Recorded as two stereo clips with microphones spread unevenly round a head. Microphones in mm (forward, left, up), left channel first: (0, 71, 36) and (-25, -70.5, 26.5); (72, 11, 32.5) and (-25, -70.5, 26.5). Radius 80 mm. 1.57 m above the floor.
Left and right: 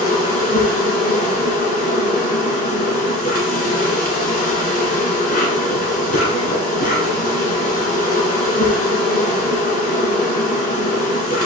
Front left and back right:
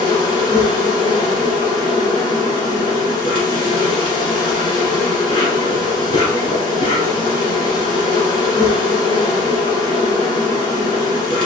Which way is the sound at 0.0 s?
95° left.